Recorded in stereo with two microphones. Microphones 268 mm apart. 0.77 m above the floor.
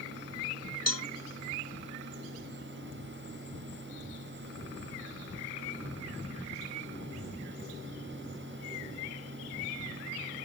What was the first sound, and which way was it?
A cowbell, 65° right (ahead or behind).